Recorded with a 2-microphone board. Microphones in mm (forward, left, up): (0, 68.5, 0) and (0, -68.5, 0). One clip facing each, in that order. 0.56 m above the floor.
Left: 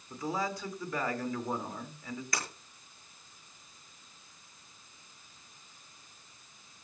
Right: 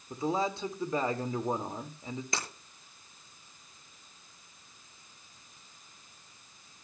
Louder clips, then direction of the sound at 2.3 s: Even; 25° right (ahead or behind).